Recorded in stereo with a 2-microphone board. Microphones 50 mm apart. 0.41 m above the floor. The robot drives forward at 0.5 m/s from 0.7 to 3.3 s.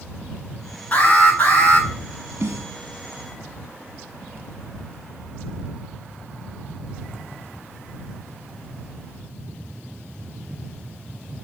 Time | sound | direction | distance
0.9 | an alarm | 35° left (ahead or behind) | 5 m
2.4 | a snare drum | 70° right (ahead or behind) | 1.2 m